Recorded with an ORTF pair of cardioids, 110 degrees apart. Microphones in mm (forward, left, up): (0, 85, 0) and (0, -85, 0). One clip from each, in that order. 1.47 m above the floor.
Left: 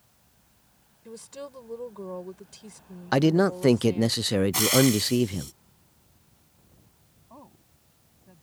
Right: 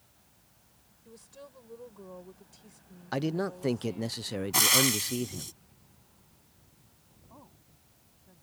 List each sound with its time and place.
1.1 s a woman speaking: 55° left
3.1 s a man speaking: 45° left
4.5 s frying: 15° right
7.3 s a woman speaking: 30° left